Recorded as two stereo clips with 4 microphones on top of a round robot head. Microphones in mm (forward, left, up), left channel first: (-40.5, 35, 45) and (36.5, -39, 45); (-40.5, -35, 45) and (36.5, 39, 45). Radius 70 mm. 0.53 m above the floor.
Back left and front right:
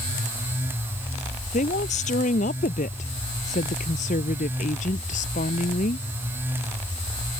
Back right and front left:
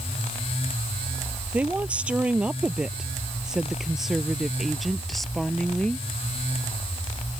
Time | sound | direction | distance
1.5 | a woman speaking | 120° left | ?